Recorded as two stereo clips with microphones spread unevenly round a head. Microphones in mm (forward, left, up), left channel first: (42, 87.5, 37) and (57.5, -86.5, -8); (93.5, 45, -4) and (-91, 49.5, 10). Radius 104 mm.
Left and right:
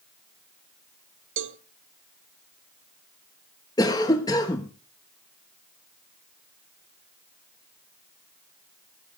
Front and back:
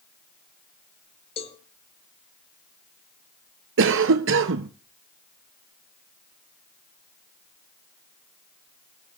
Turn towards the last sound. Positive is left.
turn(degrees=175)